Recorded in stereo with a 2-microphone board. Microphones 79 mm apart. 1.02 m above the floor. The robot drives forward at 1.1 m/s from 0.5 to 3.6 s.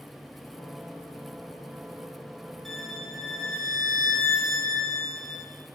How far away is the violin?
About 8.5 m.